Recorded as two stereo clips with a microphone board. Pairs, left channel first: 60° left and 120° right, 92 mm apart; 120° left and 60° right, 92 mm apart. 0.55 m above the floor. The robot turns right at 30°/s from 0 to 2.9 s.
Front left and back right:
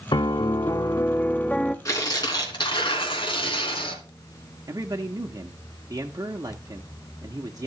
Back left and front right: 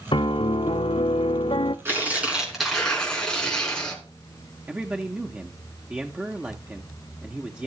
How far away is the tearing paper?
About 3 m.